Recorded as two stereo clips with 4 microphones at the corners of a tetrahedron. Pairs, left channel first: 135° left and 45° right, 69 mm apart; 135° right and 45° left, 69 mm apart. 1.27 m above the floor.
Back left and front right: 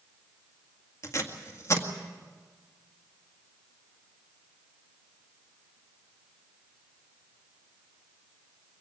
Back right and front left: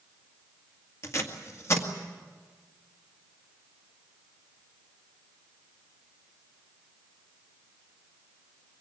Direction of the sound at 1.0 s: Straight behind.